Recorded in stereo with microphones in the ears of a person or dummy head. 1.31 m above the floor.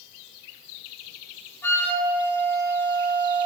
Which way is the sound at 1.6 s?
15° left (ahead or behind).